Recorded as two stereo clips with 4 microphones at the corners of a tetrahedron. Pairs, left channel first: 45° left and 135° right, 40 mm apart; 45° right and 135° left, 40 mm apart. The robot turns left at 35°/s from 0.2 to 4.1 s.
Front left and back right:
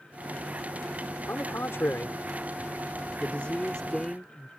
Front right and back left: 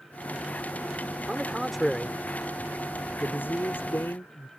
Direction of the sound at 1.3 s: 60° left.